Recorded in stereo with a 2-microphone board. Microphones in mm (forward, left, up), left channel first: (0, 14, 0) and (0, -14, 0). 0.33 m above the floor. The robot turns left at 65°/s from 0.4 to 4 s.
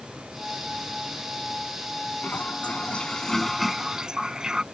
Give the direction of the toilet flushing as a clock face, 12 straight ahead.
9 o'clock.